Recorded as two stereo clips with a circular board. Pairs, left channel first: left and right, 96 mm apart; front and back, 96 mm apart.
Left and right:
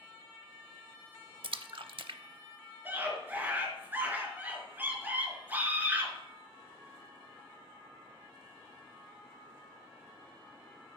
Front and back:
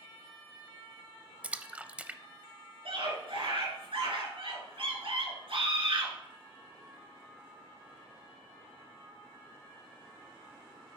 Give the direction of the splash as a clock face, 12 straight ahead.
3 o'clock.